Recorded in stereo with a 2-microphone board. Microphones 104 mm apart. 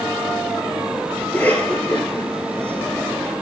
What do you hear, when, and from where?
1.2 s a cough: 15° left (ahead or behind), 8 m